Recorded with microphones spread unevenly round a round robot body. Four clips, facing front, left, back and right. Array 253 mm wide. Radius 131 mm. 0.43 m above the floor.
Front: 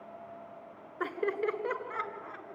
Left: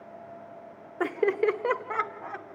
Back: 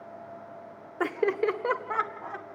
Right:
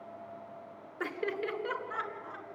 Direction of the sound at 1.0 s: 140° left.